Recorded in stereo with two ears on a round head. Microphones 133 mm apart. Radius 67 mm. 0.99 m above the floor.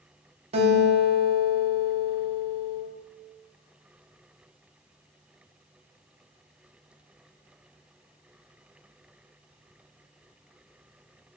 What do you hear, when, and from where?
0.5 s a guitar: 40° right (ahead or behind), 0.5 m